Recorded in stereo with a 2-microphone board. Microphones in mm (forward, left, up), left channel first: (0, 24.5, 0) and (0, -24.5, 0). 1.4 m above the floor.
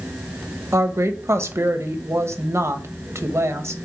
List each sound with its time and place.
0.7 s a woman speaking: 75° right (ahead or behind), 1.1 m